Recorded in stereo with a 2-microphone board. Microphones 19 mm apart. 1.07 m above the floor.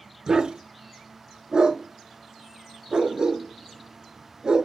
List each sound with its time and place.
0.3 s a dog barking: 50° right (ahead or behind), 1.1 m